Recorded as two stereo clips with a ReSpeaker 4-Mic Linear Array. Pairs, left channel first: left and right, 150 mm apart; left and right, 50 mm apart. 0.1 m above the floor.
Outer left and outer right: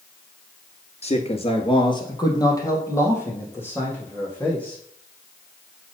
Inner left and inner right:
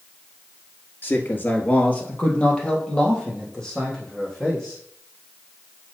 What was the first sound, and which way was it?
A man speaking, 45° left (ahead or behind).